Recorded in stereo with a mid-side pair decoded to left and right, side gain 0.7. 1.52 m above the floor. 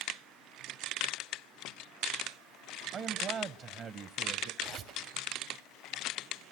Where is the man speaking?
40° right, 1.7 m.